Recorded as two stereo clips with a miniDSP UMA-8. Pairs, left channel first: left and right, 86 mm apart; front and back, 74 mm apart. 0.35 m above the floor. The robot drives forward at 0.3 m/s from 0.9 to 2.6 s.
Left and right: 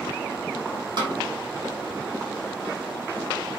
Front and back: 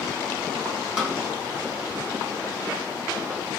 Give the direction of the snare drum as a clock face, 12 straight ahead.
3 o'clock.